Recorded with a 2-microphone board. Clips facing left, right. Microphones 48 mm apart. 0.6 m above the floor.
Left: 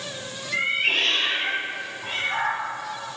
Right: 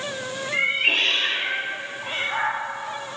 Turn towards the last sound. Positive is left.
turn(degrees=-5)  # may be behind; listen again after turning